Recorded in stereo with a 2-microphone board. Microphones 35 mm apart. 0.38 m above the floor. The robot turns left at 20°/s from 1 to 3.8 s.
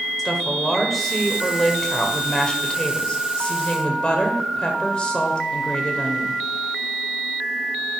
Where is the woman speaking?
170° left, 1.6 m; by 6.4 s 115° left, 1.6 m.